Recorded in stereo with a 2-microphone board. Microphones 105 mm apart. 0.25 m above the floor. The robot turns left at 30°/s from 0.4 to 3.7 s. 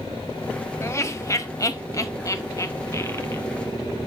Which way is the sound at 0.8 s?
25° left (ahead or behind).